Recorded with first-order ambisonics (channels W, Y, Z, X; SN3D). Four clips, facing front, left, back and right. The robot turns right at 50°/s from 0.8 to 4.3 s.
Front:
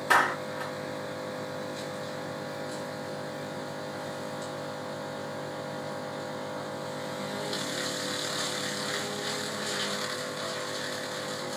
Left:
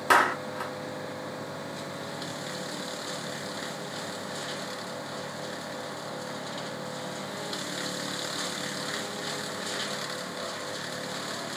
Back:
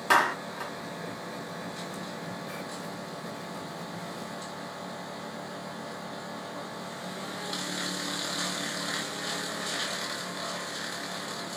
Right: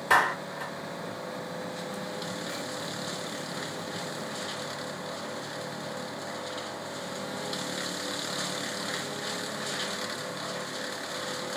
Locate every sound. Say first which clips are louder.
0.1 s a clap: left 1 dB, even; 110° left, 2 m